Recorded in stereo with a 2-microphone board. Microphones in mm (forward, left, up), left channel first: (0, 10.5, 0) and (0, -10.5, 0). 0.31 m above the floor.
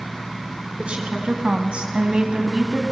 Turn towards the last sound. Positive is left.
turn(degrees=-30)  # may be behind; listen again after turning